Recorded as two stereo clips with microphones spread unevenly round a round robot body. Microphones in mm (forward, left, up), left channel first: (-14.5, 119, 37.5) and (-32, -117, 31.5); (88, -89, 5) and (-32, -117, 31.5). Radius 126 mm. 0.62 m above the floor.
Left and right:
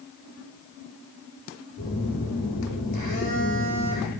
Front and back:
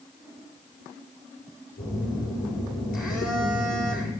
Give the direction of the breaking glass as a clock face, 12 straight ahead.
No breaking glass in this recording.